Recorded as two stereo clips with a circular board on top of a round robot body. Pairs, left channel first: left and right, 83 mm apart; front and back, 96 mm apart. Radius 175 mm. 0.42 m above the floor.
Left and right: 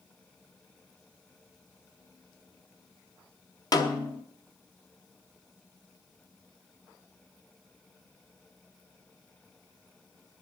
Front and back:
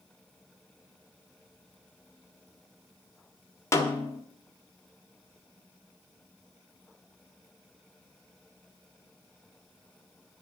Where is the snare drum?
55° left, 1.7 m.